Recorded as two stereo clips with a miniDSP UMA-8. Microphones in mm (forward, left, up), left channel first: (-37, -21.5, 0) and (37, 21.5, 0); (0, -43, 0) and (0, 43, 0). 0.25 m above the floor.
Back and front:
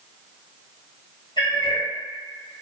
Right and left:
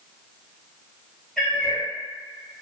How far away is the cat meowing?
About 1.7 m.